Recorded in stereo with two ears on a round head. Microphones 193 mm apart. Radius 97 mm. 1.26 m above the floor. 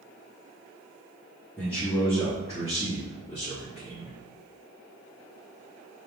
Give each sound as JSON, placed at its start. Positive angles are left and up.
{"t": 1.6, "sound": "a man speaking", "side_deg": 10, "distance_m": 3.5}